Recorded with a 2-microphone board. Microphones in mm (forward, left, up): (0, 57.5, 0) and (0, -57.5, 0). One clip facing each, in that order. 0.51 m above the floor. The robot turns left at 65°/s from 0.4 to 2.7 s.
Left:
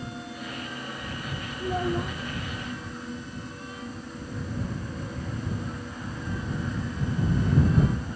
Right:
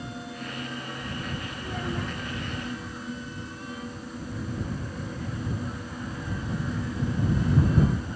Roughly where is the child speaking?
Ahead left.